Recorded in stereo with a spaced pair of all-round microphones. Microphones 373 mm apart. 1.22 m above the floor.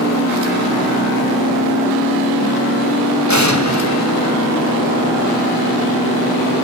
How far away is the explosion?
About 3 m.